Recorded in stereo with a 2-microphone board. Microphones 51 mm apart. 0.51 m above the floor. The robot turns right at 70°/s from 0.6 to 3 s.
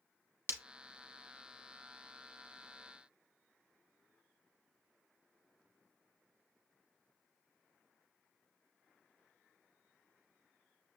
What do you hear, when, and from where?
0.5 s breaking glass: 45° right (ahead or behind), 0.9 m